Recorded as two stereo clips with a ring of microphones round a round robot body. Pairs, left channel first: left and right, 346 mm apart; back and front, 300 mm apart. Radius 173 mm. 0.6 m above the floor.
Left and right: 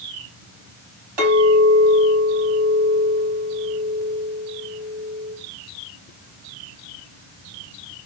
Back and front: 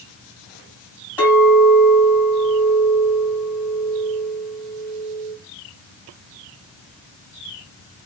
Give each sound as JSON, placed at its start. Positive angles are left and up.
{"t": 1.2, "sound": "a clink", "azimuth_deg": -85, "distance_m": 2.5}